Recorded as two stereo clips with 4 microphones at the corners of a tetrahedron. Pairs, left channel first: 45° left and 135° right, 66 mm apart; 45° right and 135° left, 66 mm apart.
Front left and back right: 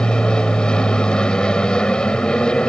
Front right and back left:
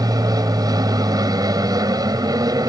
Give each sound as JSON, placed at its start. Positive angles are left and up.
{"t": 0.0, "sound": "an aircraft", "azimuth_deg": 120}